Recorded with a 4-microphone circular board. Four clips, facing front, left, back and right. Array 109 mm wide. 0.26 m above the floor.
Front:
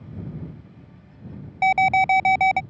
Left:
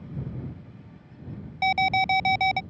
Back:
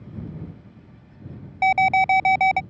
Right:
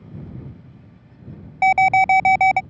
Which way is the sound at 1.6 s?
95° right.